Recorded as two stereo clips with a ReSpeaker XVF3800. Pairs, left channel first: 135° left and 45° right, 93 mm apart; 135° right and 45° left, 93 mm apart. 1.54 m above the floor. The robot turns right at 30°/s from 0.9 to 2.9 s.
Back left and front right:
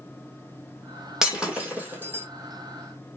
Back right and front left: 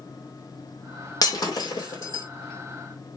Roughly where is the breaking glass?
Behind right.